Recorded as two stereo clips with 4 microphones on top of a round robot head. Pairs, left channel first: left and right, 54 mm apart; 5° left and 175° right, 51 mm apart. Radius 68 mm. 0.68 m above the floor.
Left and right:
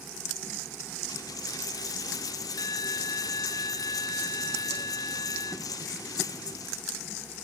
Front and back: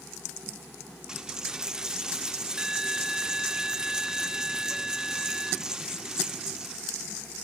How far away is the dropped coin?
About 0.7 m.